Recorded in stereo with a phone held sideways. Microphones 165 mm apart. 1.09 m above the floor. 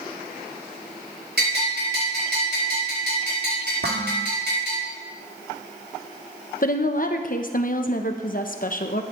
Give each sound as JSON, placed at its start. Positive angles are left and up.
{"t": 1.4, "sound": "a bell", "side_deg": -85, "distance_m": 6.5}
{"t": 3.8, "sound": "dishes clattering", "side_deg": -85, "distance_m": 1.5}
{"t": 6.6, "sound": "a woman speaking", "side_deg": 55, "distance_m": 1.0}